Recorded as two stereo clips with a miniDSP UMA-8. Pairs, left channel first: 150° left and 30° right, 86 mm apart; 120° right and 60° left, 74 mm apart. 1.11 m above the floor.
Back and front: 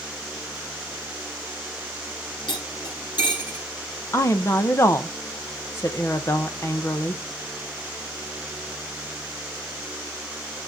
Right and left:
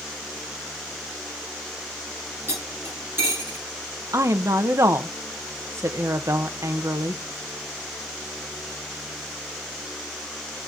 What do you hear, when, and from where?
2.5 s cutlery clinking: 120° left, 8 m
4.1 s a woman speaking: 100° left, 1.0 m